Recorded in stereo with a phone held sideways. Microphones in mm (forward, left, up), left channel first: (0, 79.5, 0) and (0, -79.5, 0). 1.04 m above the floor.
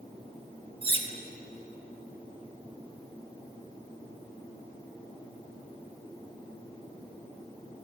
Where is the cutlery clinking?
30° right (ahead or behind), 0.8 m.